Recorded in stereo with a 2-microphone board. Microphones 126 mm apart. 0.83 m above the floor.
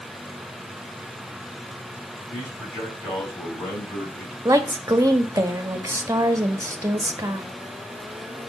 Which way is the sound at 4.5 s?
25° right (ahead or behind).